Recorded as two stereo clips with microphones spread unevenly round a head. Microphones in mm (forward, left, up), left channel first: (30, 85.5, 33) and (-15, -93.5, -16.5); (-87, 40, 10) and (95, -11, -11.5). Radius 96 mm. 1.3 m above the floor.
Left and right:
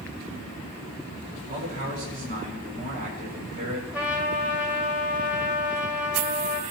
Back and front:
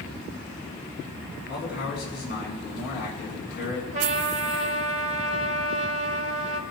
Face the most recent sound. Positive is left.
turn(degrees=0)